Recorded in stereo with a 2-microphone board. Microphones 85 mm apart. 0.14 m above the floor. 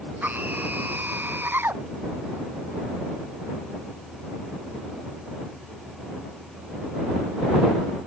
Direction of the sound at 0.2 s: 20° right (ahead or behind).